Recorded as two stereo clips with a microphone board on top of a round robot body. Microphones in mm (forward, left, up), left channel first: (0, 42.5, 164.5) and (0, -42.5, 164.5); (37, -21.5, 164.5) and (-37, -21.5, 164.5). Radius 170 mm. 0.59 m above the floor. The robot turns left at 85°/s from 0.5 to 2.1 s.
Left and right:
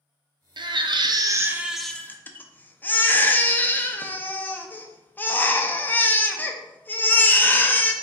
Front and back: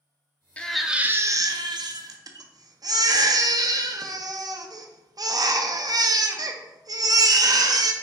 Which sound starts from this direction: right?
A baby crying, at 0.6 s.